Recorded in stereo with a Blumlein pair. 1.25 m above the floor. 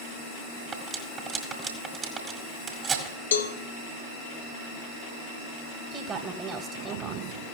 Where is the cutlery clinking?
25° right, 1.8 m.